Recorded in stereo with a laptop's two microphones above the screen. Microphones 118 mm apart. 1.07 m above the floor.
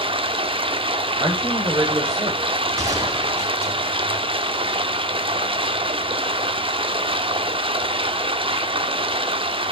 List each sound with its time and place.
0.0 s running water: 50° right (ahead or behind), 0.9 m
1.2 s a man speaking: 35° right (ahead or behind), 4.5 m
2.8 s a gunshot: 25° right (ahead or behind), 3.5 m